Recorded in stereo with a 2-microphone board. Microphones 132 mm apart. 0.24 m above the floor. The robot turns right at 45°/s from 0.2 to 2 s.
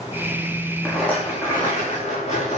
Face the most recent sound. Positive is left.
turn(degrees=50)